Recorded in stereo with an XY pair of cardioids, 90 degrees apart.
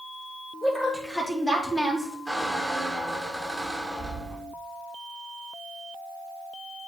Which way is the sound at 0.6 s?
15° left.